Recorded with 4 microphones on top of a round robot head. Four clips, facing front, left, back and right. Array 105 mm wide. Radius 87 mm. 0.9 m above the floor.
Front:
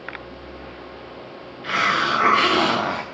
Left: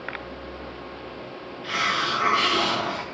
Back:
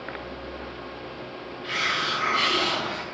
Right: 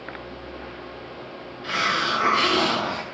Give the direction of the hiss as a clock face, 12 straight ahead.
1 o'clock.